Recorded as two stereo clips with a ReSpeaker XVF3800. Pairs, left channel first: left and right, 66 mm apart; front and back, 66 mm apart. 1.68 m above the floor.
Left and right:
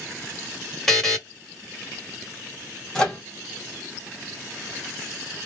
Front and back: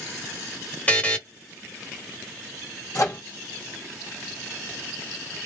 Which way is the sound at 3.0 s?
15° left.